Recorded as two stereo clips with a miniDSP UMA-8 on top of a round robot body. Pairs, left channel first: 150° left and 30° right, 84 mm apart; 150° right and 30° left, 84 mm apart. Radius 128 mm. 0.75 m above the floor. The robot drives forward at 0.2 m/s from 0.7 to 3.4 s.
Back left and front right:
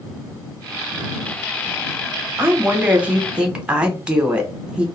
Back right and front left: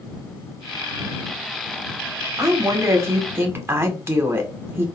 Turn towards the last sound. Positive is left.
turn(degrees=35)